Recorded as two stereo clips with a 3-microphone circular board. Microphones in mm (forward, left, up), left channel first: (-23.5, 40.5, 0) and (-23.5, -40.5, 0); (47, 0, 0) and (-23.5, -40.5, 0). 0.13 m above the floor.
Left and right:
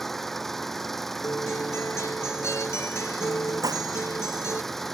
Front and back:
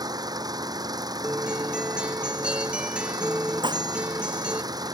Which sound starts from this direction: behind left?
A guitar, at 1.2 s.